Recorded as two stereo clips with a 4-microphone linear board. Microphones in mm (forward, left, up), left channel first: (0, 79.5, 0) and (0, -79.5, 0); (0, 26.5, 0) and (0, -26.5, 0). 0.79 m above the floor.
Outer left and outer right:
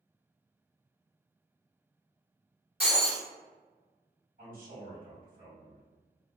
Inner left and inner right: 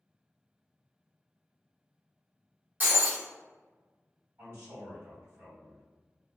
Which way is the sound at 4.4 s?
55° right (ahead or behind).